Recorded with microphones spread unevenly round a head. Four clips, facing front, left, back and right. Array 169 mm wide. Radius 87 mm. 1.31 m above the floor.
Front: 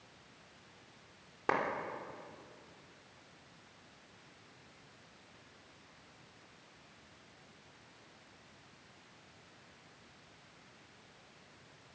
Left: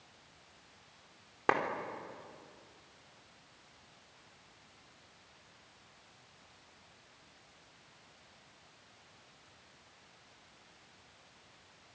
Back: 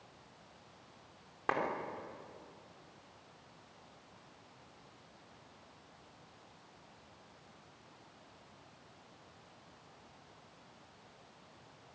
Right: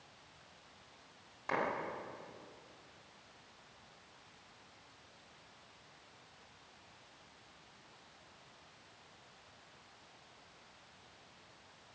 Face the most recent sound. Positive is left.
turn(degrees=75)